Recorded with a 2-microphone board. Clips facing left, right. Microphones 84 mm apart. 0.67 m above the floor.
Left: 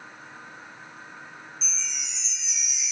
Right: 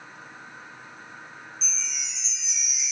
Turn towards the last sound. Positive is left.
turn(degrees=0)  # may be behind; listen again after turning